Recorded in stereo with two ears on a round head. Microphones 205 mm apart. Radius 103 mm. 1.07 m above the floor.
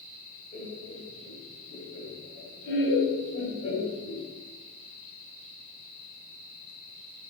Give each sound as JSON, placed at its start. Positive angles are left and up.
{"t": 0.5, "sound": "laughter", "side_deg": 40, "distance_m": 3.0}